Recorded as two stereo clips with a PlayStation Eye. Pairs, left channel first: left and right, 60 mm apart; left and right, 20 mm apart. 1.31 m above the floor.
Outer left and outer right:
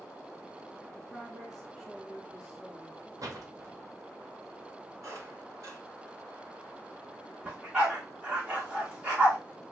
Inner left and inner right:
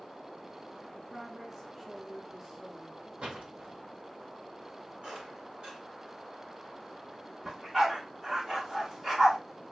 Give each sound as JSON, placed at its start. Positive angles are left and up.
{"t": 0.8, "sound": "a woman speaking", "side_deg": 5, "distance_m": 0.8}
{"t": 3.2, "sound": "a door slam", "side_deg": -70, "distance_m": 0.8}
{"t": 5.0, "sound": "a squeak", "side_deg": -65, "distance_m": 2.0}
{"t": 7.5, "sound": "a dog barking", "side_deg": -20, "distance_m": 1.3}